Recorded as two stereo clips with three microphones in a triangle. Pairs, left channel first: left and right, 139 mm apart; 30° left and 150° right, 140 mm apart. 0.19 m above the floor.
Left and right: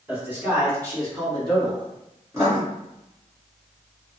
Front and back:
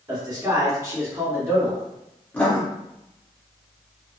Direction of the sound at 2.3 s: 40° right.